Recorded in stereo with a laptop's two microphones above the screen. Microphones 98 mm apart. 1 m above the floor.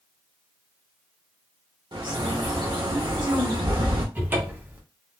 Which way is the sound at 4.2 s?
20° right (ahead or behind).